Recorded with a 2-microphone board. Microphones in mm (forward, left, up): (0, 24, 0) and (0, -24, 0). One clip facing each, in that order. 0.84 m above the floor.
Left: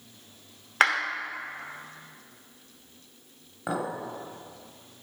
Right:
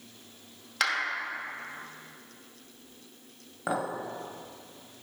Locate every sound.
0.8 s a clap: 35° left (ahead or behind), 0.9 m
3.7 s a clink: 10° right (ahead or behind), 1.2 m